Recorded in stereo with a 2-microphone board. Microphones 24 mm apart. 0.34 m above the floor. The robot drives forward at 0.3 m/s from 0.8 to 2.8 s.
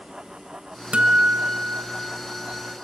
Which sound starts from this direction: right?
A guitar, at 0.9 s.